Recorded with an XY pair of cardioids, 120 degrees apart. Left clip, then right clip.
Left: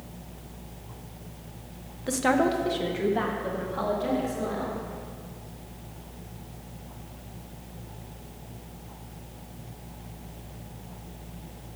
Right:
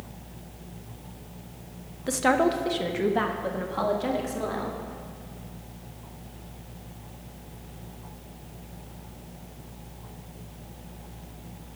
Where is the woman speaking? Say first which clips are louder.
Right 1 dB; 10° right, 0.7 m; by 4.8 s 35° right, 2 m.